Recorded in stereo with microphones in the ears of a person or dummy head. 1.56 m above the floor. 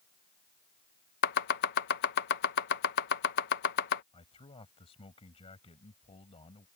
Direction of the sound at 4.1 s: 25° left (ahead or behind).